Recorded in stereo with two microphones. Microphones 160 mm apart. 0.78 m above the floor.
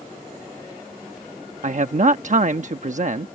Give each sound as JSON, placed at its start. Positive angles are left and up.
{"t": 1.6, "sound": "a man speaking", "side_deg": -50}